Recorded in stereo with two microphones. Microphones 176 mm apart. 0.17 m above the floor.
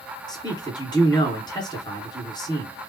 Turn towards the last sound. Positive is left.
turn(degrees=25)  # may be behind; listen again after turning